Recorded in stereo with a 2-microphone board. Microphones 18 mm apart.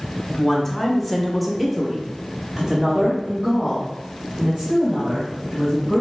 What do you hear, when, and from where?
0.3 s a woman speaking: 20° left (ahead or behind), 1.1 m; by 6.0 s 40° right (ahead or behind), 2.5 m